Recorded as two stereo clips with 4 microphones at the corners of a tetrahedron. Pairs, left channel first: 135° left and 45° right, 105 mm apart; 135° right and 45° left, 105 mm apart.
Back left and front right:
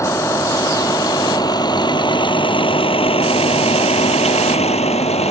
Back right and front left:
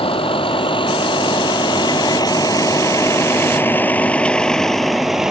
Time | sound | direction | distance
0.0 | a vehicle | 165° right | ?